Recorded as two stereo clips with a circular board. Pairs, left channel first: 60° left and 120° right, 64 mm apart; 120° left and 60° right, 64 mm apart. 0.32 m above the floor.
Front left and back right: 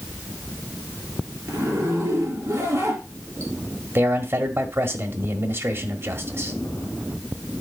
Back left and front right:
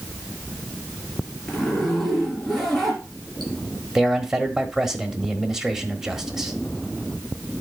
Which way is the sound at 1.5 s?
150° right.